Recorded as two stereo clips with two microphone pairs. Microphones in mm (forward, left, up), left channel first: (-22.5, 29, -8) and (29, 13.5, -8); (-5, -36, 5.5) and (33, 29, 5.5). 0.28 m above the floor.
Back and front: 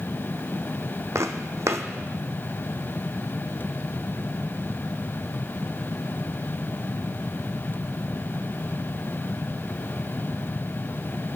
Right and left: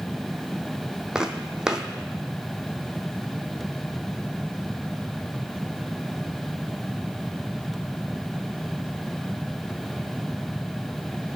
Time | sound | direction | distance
1.1 | footsteps | 20° right | 0.5 m